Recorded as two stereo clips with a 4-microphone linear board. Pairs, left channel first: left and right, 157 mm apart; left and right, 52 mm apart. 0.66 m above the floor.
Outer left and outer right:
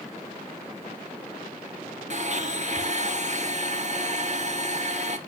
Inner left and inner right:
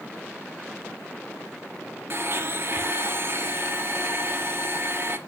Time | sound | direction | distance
2.1 | a blender | 50° right (ahead or behind) | 1.1 m